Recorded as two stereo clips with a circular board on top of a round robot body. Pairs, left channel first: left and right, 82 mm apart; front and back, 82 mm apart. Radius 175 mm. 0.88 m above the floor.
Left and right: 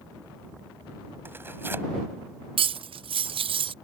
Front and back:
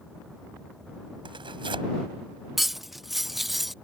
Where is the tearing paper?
155° right.